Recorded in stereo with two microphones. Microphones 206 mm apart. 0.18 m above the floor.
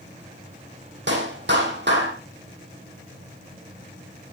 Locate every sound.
1.1 s a clap: 60° right (ahead or behind), 5.5 m